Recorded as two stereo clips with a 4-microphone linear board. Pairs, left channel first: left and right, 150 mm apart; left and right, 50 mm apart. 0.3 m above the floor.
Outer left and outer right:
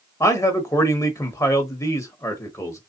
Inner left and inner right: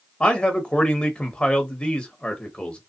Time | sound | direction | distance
0.2 | a man speaking | 20° left (ahead or behind) | 1.0 m